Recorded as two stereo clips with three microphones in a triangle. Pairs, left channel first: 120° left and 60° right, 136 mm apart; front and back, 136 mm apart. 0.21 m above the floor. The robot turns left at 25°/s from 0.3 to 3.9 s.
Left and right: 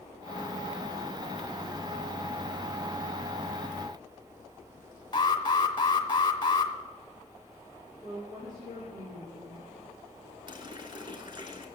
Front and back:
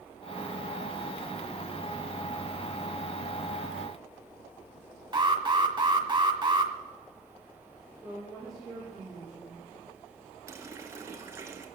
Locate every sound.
5.1 s an alarm: 155° left, 1.4 m
8.0 s a woman speaking: 90° right, 8 m
10.5 s a running tap: 115° right, 1.7 m